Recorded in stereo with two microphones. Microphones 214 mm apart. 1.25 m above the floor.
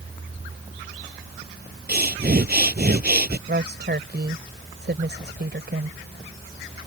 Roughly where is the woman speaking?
Right.